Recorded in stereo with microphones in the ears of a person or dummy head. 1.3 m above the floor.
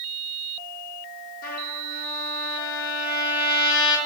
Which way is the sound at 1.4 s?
50° left (ahead or behind).